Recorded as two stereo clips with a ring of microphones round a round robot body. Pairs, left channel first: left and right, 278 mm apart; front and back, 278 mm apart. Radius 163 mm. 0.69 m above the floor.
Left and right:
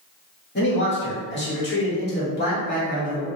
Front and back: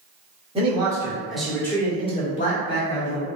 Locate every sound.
0.6 s a man speaking: 120° left, 1.4 m; by 3.3 s 30° left, 1.7 m